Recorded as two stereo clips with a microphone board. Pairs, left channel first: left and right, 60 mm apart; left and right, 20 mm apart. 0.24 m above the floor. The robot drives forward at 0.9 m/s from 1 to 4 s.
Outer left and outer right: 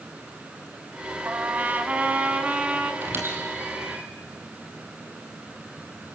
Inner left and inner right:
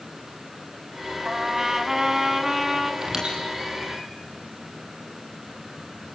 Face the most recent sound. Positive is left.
turn(degrees=-35)  # may be behind; listen again after turning